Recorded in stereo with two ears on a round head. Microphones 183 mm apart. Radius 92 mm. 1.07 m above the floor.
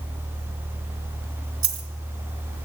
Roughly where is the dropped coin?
Centre.